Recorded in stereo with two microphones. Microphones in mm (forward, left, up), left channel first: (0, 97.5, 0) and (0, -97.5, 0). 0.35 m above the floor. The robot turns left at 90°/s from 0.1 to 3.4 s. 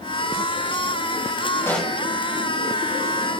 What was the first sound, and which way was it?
A pop, 15° left.